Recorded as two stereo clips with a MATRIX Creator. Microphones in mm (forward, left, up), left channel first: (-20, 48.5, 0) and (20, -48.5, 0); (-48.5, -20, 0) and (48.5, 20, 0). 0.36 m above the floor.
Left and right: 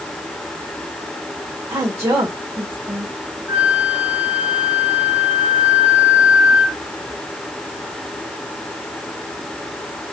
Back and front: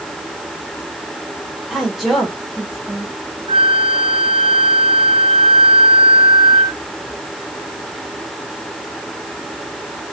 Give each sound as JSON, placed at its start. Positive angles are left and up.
{"t": 1.7, "sound": "a woman speaking", "azimuth_deg": -60, "distance_m": 1.4}
{"t": 3.5, "sound": "a flute", "azimuth_deg": 0, "distance_m": 1.8}